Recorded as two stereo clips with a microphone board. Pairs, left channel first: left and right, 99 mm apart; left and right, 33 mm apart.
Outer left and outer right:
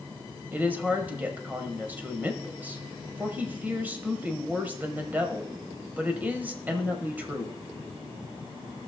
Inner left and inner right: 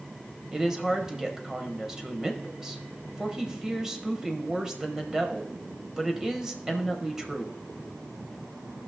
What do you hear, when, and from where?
0.5 s a woman speaking: 20° right (ahead or behind), 1.1 m